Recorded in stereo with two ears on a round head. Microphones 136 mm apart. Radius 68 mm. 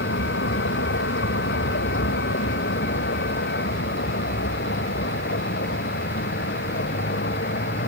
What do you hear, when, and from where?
0.0 s a vehicle: 85° left; by 7.9 s 70° left (ahead or behind)